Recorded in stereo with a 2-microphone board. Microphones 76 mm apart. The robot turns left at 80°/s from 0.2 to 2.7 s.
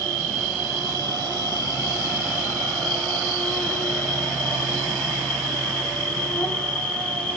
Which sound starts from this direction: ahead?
An insect, at 0.0 s.